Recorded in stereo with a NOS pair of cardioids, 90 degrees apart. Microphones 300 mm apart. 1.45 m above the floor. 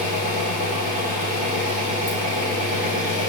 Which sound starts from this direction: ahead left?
An engine running, at 0.0 s.